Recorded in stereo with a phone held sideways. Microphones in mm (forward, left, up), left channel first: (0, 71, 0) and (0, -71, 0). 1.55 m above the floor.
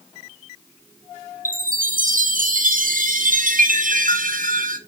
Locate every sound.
1.4 s a chime: 70° right (ahead or behind), 0.8 m